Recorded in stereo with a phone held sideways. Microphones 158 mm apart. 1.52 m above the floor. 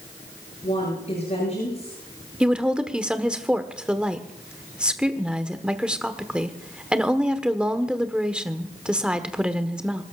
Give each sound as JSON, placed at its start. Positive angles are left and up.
{"t": 0.6, "sound": "a woman speaking", "side_deg": 45, "distance_m": 9.5}
{"t": 2.4, "sound": "a woman speaking", "side_deg": -5, "distance_m": 1.2}